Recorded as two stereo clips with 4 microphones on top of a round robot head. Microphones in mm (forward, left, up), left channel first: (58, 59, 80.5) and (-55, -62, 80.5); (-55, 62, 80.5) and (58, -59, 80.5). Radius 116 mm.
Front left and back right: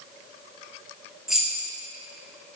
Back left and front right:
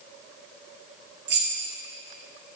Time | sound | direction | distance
1.3 | keys jangling | 45° right | 0.7 m